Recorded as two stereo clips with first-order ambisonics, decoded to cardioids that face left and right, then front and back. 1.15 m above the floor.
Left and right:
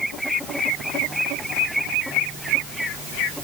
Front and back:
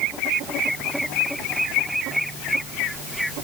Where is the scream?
I don't hear a scream.